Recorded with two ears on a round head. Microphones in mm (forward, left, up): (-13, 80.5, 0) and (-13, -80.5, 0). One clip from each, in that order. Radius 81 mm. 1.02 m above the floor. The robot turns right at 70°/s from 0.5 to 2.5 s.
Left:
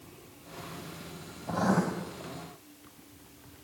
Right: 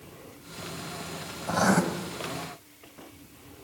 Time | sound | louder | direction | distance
1.5 | writing | right 5 dB | 55° right (ahead or behind) | 4 m